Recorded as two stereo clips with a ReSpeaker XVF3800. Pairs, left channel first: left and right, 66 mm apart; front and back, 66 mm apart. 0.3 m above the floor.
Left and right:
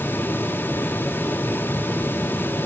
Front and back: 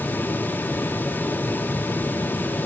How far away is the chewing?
No chewing in this recording.